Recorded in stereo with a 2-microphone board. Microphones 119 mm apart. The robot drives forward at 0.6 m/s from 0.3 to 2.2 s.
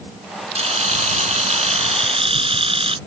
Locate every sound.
0.6 s a camera shutter: 65° right (ahead or behind); by 3.0 s 55° right (ahead or behind)